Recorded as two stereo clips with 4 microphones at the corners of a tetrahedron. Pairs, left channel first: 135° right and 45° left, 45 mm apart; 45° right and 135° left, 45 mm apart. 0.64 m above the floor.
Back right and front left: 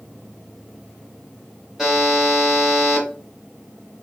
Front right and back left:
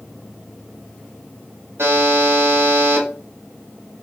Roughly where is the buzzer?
Behind left.